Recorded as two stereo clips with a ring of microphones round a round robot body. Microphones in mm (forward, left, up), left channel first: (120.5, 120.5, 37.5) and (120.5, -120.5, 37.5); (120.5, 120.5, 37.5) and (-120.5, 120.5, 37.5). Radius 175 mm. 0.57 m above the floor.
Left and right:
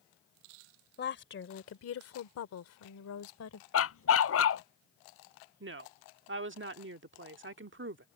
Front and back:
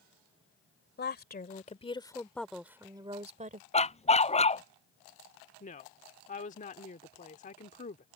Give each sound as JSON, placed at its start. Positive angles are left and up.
{"t": 1.0, "sound": "a woman speaking", "azimuth_deg": 45}
{"t": 3.7, "sound": "a dog barking", "azimuth_deg": 65}
{"t": 5.6, "sound": "a woman speaking", "azimuth_deg": -60}